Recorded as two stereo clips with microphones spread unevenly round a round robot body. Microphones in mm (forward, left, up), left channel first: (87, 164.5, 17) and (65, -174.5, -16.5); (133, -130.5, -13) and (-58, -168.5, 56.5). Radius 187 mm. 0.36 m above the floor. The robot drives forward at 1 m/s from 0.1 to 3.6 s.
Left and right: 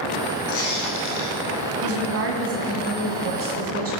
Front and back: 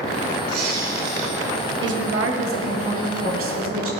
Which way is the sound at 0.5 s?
155° left.